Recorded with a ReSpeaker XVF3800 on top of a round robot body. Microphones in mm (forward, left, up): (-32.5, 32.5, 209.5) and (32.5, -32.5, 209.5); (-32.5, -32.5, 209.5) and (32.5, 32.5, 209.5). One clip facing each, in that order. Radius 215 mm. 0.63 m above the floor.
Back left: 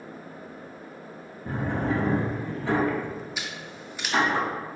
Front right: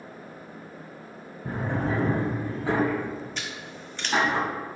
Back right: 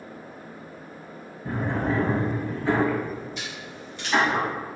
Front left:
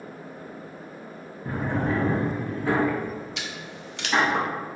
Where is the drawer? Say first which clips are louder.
Back left 1 dB, even; 35° right, 1.9 m.